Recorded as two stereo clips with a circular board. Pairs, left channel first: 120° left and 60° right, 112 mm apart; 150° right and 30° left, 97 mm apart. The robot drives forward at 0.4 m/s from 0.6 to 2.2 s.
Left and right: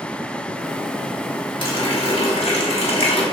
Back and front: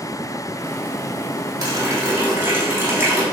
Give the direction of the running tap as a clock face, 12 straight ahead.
9 o'clock.